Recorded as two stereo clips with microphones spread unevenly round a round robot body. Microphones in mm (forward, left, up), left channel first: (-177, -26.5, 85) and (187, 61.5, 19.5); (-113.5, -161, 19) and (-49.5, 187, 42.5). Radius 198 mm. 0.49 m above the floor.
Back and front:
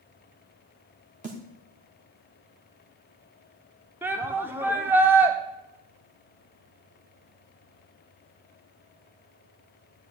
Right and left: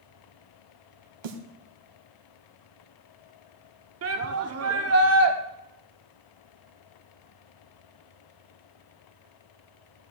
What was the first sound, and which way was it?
A snare drum, 80° left.